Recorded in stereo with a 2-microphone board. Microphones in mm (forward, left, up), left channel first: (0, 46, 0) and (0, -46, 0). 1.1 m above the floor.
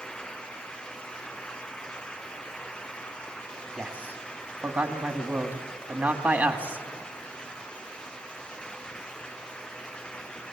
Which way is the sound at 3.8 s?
20° right (ahead or behind).